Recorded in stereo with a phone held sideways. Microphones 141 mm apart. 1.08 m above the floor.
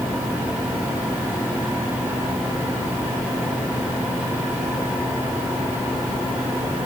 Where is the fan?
15° right (ahead or behind), 6 m.